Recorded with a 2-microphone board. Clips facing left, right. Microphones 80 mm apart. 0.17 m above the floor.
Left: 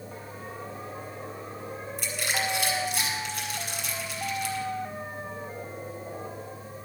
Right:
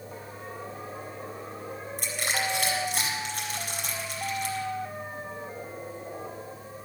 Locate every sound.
2.0 s crushing: 55° right (ahead or behind), 4.5 m